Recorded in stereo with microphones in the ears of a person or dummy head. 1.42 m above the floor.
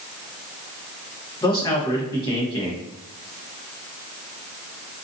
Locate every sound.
1.4 s a man speaking: 20° left (ahead or behind), 0.8 m